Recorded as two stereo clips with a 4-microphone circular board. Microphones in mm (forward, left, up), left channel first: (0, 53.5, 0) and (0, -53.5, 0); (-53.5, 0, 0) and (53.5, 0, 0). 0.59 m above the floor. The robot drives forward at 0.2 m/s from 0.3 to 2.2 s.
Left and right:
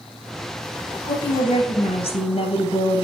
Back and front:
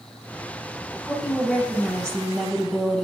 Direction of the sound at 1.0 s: 100° left.